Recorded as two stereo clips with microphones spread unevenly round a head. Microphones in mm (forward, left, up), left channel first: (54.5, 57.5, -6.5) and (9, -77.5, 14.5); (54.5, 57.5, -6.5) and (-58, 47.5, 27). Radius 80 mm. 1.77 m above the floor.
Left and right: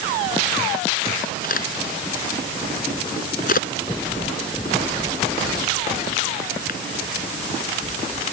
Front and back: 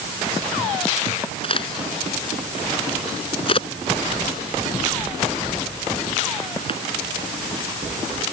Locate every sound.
1.4 s a crack: 45° left